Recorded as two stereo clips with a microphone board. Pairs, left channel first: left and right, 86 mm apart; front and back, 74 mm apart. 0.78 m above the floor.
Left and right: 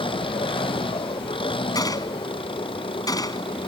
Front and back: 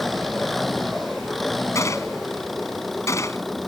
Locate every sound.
0.0 s an engine running: 90° left
1.8 s a gunshot: 45° left